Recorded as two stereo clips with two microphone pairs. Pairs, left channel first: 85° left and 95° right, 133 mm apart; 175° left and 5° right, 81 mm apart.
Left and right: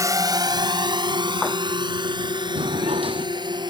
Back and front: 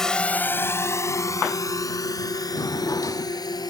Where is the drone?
105° right; by 3.7 s 150° right.